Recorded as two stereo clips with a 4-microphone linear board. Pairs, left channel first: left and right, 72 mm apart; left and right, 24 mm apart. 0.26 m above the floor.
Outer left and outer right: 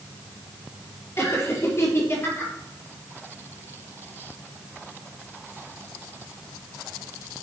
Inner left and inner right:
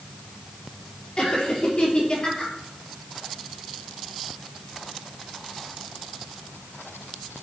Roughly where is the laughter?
Left.